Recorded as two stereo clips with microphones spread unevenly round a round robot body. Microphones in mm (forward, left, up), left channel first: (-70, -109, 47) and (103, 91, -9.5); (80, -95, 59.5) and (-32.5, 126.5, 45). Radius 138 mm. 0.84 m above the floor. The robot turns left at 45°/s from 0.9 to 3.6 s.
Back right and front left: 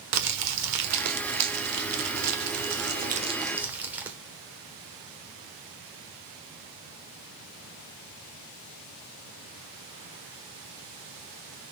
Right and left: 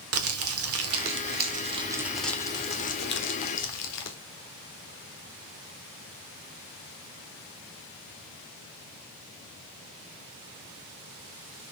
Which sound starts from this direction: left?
Crumpling, at 0.1 s.